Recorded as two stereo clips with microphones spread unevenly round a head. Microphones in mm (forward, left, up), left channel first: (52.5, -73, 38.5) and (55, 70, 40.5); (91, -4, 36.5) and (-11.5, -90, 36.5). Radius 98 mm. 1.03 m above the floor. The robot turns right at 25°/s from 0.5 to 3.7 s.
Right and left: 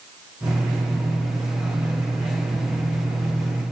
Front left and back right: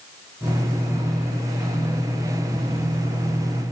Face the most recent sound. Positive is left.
No sound to turn to.